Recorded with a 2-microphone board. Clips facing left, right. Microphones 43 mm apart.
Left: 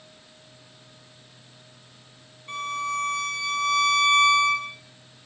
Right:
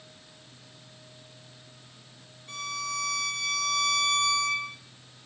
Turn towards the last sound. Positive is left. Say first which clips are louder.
# left 6 dB
turn(degrees=35)  # may be behind; listen again after turning